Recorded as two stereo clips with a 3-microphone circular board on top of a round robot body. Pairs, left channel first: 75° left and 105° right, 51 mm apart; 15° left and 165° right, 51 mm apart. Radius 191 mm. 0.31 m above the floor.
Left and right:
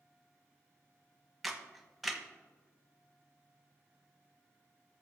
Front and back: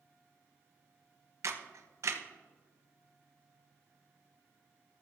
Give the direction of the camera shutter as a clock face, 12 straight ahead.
6 o'clock.